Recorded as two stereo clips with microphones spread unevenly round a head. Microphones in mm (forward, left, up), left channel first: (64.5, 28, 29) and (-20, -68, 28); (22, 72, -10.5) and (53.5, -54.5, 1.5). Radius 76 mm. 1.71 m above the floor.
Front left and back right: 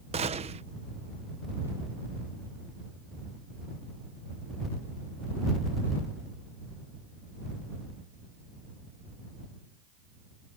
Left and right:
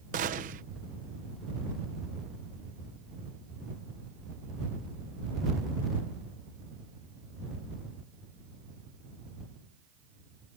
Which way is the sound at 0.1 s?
95° right.